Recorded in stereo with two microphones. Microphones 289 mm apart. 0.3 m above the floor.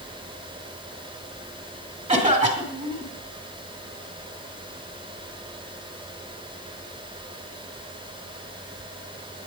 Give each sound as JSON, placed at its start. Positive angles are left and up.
{"t": 2.1, "sound": "a cough", "side_deg": -25, "distance_m": 2.0}